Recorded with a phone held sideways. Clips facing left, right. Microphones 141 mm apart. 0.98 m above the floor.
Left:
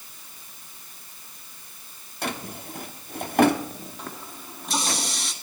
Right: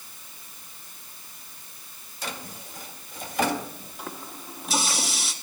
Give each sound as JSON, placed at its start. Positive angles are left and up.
{"t": 2.2, "sound": "a drawer", "side_deg": 60, "distance_m": 1.1}
{"t": 4.0, "sound": "a running tap", "side_deg": -5, "distance_m": 1.4}